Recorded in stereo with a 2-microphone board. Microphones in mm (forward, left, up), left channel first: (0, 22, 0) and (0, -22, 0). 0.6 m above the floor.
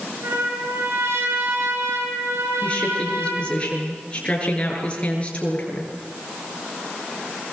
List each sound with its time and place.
0.2 s a trumpet: 70° right (ahead or behind), 9 m
2.6 s a woman speaking: 25° left (ahead or behind), 8.5 m